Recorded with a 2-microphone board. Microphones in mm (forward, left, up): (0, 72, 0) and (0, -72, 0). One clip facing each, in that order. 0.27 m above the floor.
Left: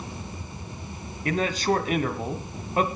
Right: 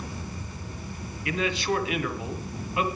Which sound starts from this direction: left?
A man speaking, at 1.2 s.